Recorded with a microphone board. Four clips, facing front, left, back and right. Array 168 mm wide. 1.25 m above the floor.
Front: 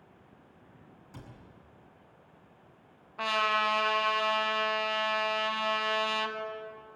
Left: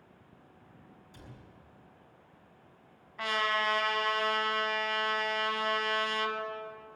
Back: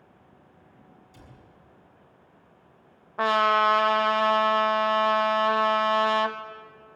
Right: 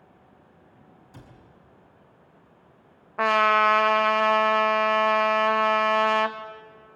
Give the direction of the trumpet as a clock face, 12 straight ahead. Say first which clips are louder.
Right 11 dB, back 8 dB; 4 o'clock.